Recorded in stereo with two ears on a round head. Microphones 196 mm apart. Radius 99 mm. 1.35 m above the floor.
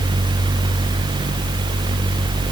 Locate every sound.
Only background noise.